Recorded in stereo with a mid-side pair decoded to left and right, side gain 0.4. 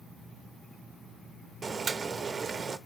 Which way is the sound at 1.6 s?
45° right.